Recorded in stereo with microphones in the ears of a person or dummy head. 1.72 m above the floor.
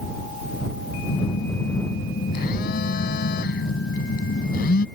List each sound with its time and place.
1.1 s a phone buzzing: 55° left (ahead or behind)